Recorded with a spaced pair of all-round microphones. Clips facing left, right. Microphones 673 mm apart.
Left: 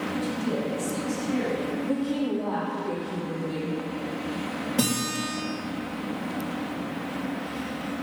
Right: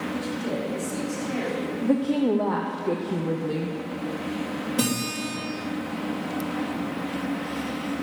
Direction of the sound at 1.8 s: 80° right.